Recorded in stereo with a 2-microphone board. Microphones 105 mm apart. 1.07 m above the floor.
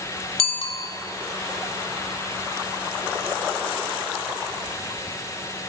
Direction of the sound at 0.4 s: 70° left (ahead or behind).